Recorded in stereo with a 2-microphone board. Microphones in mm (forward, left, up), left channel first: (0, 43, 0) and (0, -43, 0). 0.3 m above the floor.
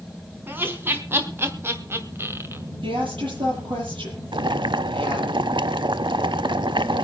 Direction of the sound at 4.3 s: 70° right (ahead or behind).